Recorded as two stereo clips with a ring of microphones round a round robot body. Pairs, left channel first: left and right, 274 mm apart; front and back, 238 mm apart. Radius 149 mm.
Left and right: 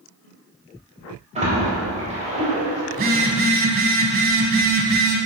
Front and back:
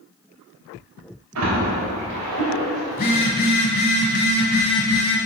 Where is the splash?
160° right, 3.5 m.